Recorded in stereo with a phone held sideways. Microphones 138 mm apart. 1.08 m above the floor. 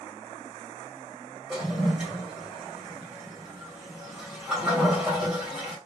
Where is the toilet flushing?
5° right (ahead or behind), 1.9 m.